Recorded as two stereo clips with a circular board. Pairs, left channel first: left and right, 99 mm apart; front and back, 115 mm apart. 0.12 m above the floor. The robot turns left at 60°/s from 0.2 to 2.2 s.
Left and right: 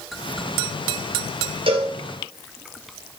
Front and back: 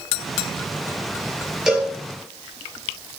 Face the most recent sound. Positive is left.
turn(degrees=-130)